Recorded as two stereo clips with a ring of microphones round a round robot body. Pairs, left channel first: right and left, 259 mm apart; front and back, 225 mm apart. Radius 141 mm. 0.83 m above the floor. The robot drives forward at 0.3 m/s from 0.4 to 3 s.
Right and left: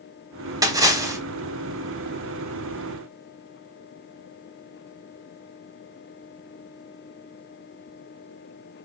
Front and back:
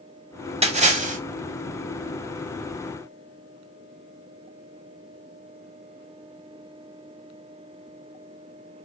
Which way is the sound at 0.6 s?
155° left.